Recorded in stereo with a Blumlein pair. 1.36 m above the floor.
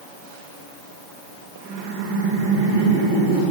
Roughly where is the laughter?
Ahead right.